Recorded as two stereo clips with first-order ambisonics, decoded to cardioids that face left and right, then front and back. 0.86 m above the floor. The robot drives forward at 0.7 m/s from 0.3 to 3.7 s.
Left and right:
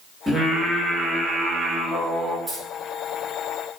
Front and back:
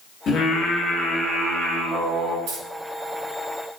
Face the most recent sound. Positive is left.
turn(degrees=-170)